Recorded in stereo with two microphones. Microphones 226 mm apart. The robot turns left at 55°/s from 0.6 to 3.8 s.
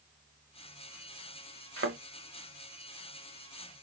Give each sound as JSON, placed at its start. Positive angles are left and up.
{"t": 1.8, "sound": "a thud", "side_deg": -80, "distance_m": 1.0}